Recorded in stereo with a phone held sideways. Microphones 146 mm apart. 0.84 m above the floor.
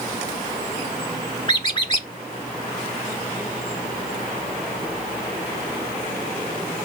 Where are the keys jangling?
I don't hear keys jangling.